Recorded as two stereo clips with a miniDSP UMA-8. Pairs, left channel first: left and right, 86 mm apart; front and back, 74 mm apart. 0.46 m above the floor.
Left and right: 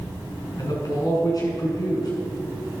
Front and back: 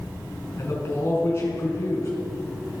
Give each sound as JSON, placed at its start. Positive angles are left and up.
{"t": 0.6, "sound": "a man speaking", "azimuth_deg": 50, "distance_m": 6.0}